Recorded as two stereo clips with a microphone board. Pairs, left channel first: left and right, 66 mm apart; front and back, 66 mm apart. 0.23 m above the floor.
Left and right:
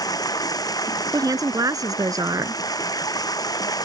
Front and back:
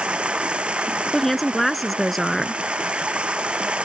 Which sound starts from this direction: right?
A woman speaking, at 1.1 s.